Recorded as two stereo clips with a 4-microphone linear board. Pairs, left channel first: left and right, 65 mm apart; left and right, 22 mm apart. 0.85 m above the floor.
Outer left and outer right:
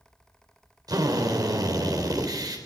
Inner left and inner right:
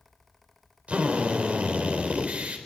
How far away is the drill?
About 4 m.